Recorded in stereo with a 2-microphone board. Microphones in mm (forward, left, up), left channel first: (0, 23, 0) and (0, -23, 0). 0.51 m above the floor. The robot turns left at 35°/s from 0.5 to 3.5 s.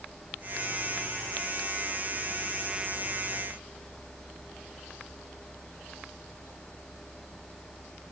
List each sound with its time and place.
Only background noise.